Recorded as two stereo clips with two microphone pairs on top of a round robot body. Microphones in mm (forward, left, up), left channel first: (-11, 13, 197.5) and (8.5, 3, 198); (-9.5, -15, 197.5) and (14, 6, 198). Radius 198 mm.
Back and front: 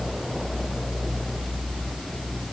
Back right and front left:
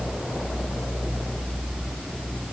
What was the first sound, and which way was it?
Only background noise.